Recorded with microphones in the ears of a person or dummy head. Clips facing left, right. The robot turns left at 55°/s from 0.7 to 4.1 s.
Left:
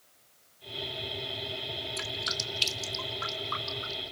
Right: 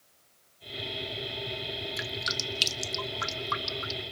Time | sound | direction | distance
2.0 | dripping | 20° right (ahead or behind) | 1.8 m